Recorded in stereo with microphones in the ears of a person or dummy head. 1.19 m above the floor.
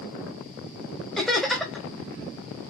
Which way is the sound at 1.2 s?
5° left (ahead or behind).